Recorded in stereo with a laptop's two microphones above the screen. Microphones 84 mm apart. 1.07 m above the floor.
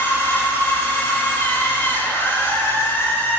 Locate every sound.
0.0 s a machine running: 30° left (ahead or behind), 4 m